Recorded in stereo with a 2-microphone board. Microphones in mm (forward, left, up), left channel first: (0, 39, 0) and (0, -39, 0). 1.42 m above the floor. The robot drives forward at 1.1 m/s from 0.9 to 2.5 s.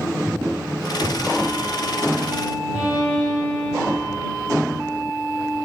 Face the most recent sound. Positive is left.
turn(degrees=-15)  # may be behind; listen again after turning